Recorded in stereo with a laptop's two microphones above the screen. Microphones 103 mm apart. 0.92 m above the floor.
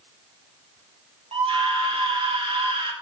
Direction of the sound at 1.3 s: 60° right (ahead or behind).